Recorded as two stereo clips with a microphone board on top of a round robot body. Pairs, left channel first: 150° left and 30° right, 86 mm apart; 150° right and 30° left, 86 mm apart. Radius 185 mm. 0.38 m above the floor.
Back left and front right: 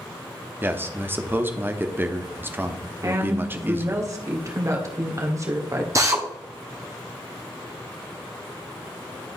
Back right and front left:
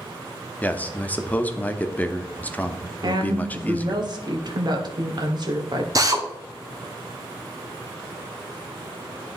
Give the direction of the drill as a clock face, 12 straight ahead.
12 o'clock.